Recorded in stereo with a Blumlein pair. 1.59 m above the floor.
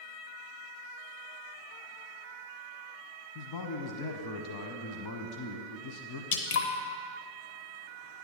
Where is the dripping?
55° left, 0.8 m.